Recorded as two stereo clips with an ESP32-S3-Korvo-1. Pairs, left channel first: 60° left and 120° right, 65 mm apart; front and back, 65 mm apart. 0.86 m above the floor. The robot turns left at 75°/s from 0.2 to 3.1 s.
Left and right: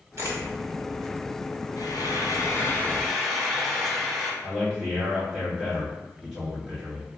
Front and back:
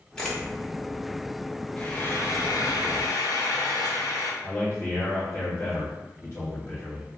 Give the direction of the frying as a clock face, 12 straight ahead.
10 o'clock.